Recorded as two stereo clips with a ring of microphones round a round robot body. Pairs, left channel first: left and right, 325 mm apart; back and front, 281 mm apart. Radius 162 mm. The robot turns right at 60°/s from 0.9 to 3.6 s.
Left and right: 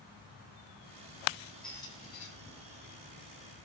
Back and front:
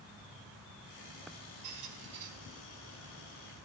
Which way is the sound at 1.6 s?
Straight ahead.